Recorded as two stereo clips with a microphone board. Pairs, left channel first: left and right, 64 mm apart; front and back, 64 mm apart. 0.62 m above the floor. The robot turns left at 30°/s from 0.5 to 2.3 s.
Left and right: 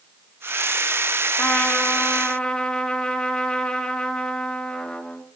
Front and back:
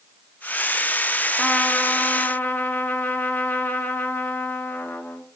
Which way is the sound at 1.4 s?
55° left.